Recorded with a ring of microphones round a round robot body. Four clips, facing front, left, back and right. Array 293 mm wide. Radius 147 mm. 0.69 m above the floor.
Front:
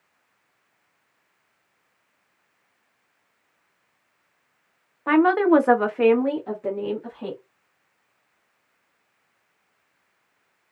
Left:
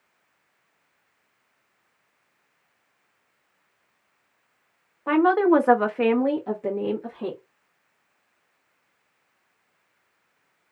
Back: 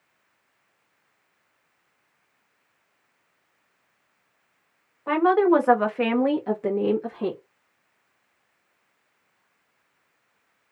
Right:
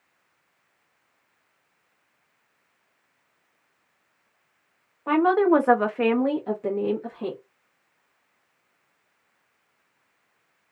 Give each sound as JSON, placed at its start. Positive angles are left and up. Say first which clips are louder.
{"t": 5.1, "sound": "a woman speaking", "louder": "left 1 dB, front 2 dB", "azimuth_deg": 0, "distance_m": 0.9}